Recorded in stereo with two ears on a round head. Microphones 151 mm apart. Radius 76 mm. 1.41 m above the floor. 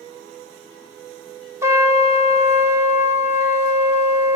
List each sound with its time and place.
1.6 s a trumpet: 15° right (ahead or behind), 2.5 m